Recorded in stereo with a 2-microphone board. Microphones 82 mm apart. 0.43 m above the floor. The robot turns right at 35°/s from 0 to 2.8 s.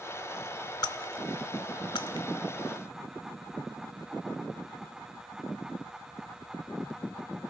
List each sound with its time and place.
0.8 s breaking glass: 55° left (ahead or behind), 1.0 m; by 2.3 s 70° left (ahead or behind), 1.0 m